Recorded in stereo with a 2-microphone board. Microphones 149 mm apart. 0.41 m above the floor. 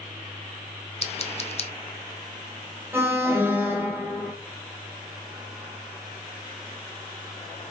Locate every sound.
1.0 s scissors: 40° left (ahead or behind), 0.8 m
2.9 s an alarm: 15° right (ahead or behind), 3 m